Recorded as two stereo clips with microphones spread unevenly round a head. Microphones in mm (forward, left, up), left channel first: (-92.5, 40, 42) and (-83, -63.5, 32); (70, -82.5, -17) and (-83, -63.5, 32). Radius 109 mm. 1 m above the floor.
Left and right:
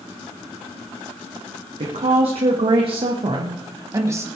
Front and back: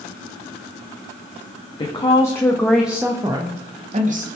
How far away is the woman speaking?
About 2.5 m.